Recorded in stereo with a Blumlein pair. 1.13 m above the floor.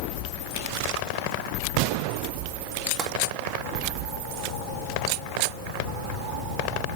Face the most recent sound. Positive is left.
turn(degrees=-25)